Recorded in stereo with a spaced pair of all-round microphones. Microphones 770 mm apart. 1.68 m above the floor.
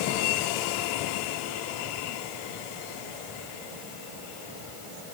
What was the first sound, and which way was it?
Only background noise.